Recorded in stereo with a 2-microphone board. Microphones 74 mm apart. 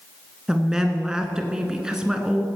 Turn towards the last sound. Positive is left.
turn(degrees=-10)  # may be behind; listen again after turning